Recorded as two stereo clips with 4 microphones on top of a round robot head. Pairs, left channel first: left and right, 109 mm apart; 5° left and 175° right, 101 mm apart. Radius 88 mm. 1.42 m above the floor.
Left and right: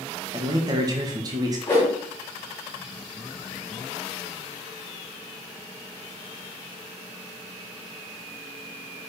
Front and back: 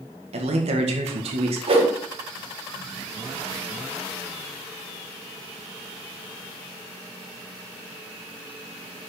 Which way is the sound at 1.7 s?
165° left.